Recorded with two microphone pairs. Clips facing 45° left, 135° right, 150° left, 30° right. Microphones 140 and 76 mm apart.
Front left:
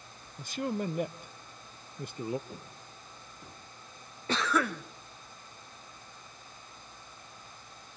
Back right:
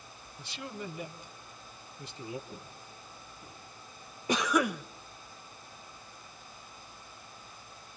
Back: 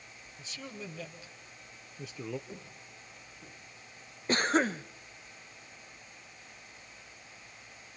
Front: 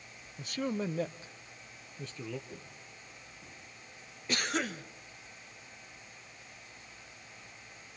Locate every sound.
0.4 s a man speaking: 5° left, 1.2 m; by 2.4 s 85° left, 0.8 m
2.5 s footsteps: 90° left, 5 m; by 3.6 s 80° left, 4.5 m
4.3 s a cough: 160° left, 0.6 m